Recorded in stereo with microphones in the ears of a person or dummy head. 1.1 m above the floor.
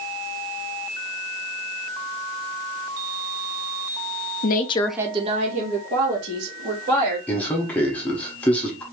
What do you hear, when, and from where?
4.4 s a woman speaking: 50° left (ahead or behind), 0.7 m; by 7.2 s 60° right (ahead or behind), 3 m
7.3 s a man speaking: 10° left (ahead or behind), 0.9 m